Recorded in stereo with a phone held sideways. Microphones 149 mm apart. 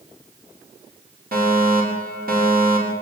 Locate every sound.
1.3 s a fire alarm: 85° right, 8.5 m